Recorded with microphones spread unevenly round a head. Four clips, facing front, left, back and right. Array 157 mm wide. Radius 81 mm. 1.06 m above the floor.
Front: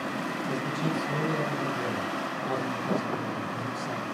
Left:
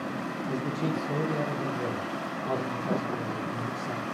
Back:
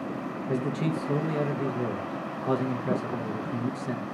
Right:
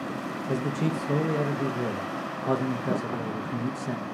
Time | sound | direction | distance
0.5 | a man speaking | 115° right | 0.8 m